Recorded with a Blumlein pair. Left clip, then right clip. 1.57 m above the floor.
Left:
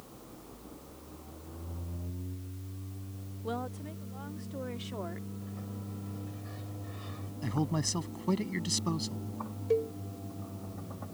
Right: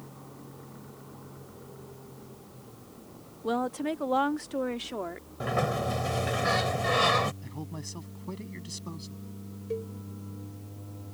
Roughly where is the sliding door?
Ahead right.